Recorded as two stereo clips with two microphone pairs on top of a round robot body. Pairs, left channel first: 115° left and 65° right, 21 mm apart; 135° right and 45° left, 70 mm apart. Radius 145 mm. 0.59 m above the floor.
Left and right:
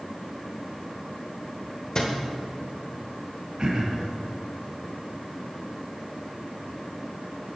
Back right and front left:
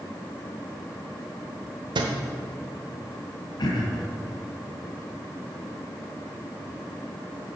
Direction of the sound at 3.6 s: 115° right.